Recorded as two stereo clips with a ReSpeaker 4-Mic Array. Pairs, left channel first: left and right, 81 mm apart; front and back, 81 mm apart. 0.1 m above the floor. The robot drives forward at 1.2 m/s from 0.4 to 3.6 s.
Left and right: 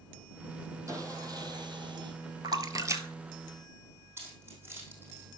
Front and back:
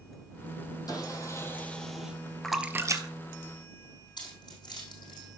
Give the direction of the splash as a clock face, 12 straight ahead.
3 o'clock.